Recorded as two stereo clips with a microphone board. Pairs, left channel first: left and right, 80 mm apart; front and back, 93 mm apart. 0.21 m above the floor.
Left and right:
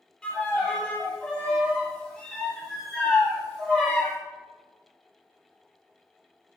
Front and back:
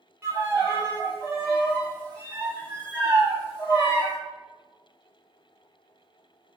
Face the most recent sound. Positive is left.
turn(degrees=155)